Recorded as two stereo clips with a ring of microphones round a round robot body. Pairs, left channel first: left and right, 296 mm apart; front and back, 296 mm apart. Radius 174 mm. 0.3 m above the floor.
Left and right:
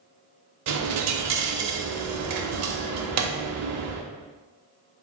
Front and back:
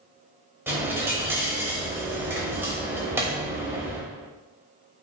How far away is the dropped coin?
About 0.7 m.